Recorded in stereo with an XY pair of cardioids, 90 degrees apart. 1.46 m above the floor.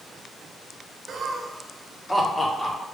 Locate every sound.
1.1 s laughter: 55° right, 0.9 m; by 2.8 s 15° left, 1.5 m